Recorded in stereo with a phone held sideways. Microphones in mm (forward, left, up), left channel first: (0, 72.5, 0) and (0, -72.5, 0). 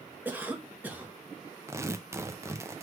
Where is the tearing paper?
20° right (ahead or behind), 0.6 m.